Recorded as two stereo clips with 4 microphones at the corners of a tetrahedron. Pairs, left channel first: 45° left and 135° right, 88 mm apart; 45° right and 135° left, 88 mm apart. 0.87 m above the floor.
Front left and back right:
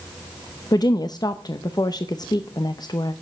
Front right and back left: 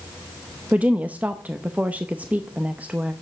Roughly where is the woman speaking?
Ahead left.